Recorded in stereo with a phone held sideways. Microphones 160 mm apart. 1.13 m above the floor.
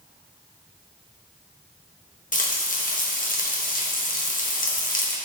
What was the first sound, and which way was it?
Frying, 55° left (ahead or behind).